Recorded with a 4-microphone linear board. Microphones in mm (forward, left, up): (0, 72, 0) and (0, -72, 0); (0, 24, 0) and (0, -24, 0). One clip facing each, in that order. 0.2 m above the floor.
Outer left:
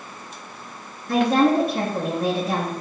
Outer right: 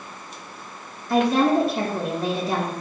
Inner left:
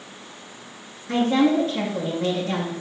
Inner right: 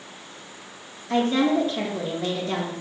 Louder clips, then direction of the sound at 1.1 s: Outer left 1 dB, inner left 2 dB; 65° left (ahead or behind).